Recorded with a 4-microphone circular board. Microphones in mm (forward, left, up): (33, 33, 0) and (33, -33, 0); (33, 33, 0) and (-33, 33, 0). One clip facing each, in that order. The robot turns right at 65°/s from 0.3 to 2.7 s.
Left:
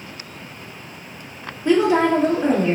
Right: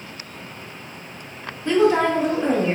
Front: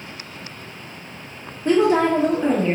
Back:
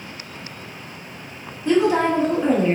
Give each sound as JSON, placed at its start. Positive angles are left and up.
{"t": 1.6, "sound": "a woman speaking", "azimuth_deg": 20, "distance_m": 1.3}